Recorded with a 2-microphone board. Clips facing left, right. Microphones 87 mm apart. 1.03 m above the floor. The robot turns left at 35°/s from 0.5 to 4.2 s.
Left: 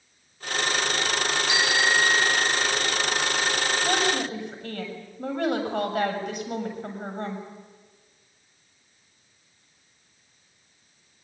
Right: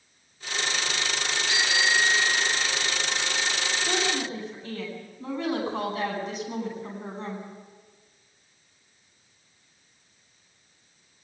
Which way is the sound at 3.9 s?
75° left (ahead or behind).